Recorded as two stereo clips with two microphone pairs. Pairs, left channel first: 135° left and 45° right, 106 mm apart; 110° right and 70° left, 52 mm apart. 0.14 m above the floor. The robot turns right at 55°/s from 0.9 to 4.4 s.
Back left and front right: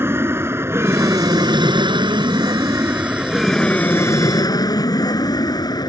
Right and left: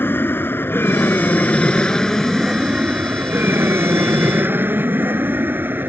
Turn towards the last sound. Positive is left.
turn(degrees=100)